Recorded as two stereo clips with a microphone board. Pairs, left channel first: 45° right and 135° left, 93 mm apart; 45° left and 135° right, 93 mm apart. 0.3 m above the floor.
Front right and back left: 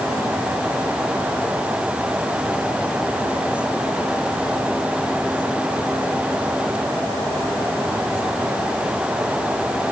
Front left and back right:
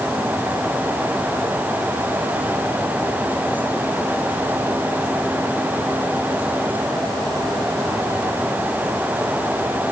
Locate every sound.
Only background noise.